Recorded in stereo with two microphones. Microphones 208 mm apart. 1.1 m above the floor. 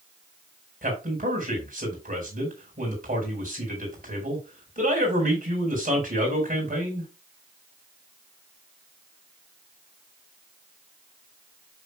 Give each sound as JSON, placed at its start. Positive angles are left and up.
{"t": 0.8, "sound": "a man speaking", "side_deg": -40, "distance_m": 4.5}